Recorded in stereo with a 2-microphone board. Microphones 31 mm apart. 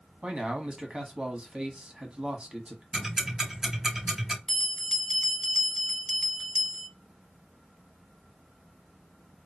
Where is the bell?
15° left (ahead or behind), 1.2 m.